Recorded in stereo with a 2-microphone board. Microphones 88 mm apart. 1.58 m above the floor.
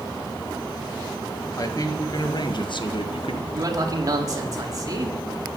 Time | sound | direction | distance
1.6 | a man speaking | 40° left (ahead or behind) | 2 m
3.5 | a man speaking | 40° right (ahead or behind) | 3 m